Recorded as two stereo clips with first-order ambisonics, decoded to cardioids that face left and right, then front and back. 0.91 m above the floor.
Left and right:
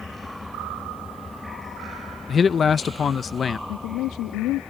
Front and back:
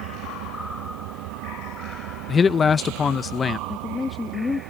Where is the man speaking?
50° left.